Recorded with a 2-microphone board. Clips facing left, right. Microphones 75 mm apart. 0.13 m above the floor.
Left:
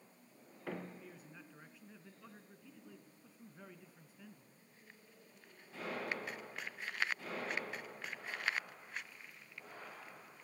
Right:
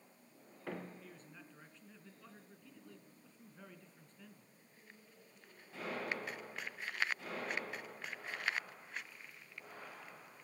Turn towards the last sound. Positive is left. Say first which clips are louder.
# left 1 dB
turn(degrees=5)  # may be behind; listen again after turning